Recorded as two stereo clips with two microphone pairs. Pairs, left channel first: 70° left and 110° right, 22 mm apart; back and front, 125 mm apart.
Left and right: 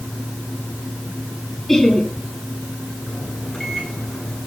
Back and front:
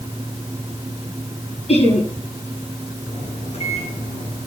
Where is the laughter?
150° left, 8.5 m.